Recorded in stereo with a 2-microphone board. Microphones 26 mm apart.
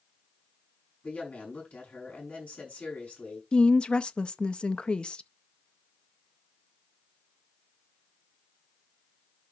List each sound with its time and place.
1.0 s a woman speaking: 75° left (ahead or behind), 6 m
3.5 s a woman speaking: 40° left (ahead or behind), 0.6 m